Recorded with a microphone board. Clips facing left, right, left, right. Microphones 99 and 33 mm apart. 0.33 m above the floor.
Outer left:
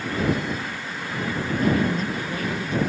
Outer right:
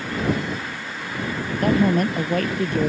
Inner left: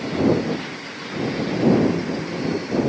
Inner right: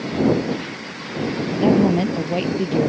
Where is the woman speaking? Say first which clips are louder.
Outer right 5 dB, inner right 2 dB; 60° right (ahead or behind); by 2.9 s 55° right (ahead or behind).